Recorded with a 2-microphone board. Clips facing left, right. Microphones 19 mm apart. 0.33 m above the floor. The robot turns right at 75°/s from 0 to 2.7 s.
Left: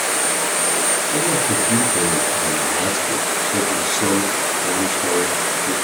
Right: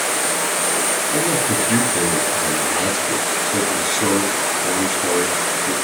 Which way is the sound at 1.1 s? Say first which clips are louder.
Right 1 dB; 120° right.